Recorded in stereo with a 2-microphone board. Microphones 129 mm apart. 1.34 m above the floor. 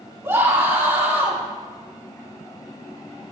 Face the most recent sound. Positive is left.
turn(degrees=-20)  # may be behind; listen again after turning